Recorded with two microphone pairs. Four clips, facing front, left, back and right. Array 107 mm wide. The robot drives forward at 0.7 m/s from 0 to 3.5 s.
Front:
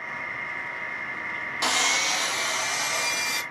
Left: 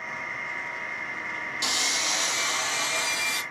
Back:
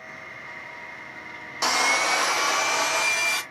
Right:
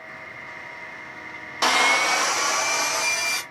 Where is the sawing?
100° right, 0.5 m; by 3.4 s 160° right, 1.4 m.